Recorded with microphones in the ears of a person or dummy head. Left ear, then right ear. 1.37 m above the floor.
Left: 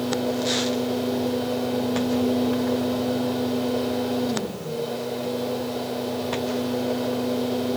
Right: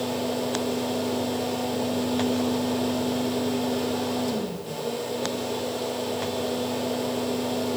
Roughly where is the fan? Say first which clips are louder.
Left 2 dB; right.